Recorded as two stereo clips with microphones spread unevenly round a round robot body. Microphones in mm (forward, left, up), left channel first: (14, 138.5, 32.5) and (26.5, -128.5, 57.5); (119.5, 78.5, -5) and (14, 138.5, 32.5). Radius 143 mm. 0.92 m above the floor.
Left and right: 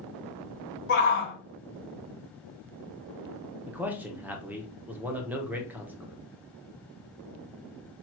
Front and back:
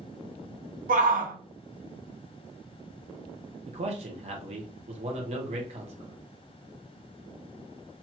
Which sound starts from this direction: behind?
A man speaking, at 3.7 s.